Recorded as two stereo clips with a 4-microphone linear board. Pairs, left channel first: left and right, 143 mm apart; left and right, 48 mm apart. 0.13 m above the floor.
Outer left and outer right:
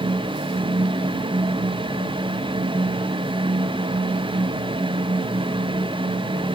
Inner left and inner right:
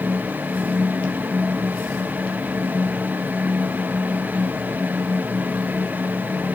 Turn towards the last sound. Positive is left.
No sound to turn to.